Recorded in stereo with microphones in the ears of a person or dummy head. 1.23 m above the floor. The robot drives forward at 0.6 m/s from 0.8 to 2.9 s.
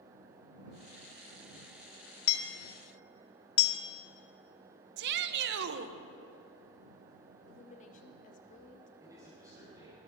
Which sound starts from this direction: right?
A shout, at 5.0 s.